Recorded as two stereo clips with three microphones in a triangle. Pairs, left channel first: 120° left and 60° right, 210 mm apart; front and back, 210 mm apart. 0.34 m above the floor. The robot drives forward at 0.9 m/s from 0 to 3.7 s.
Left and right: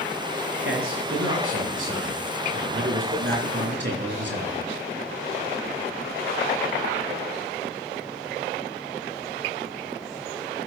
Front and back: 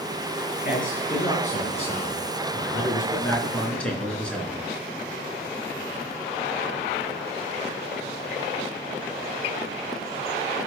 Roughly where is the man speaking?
Ahead right.